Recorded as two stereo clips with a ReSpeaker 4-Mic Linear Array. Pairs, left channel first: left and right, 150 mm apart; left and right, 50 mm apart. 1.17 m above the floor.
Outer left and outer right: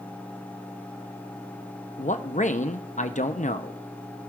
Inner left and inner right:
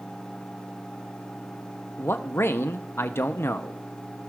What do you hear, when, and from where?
2.0 s a man speaking: 55° left (ahead or behind), 0.5 m